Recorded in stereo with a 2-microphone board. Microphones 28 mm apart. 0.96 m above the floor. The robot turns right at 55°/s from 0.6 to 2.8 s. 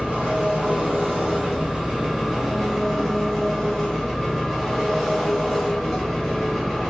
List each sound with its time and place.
0.0 s an engine running: 130° right, 2 m; by 6.9 s 5° right, 2 m